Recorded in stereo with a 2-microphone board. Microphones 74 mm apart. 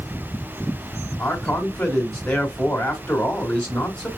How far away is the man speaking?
About 1.6 m.